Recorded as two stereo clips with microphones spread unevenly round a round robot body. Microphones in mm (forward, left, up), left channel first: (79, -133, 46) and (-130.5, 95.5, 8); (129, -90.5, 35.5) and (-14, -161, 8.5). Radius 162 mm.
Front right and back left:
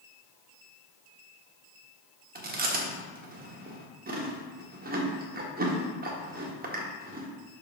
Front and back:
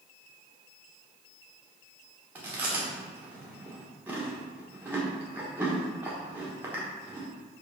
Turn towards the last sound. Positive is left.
turn(degrees=150)